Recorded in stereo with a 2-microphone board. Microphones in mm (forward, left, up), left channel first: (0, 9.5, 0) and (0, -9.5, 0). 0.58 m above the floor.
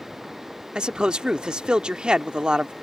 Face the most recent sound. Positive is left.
turn(degrees=-50)  # may be behind; listen again after turning